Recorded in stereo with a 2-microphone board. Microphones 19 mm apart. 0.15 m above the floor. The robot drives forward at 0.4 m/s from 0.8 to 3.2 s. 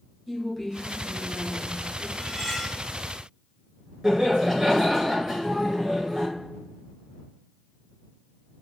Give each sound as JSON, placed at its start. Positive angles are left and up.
{"t": 0.3, "sound": "a woman speaking", "side_deg": 0, "distance_m": 1.2}
{"t": 2.2, "sound": "cutlery clinking", "side_deg": 25, "distance_m": 1.1}
{"t": 4.0, "sound": "laughter", "side_deg": -20, "distance_m": 2.0}